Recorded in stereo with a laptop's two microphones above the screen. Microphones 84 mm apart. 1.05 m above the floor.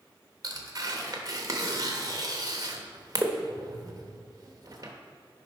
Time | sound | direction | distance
0.4 | tearing paper | 40° right (ahead or behind) | 0.8 m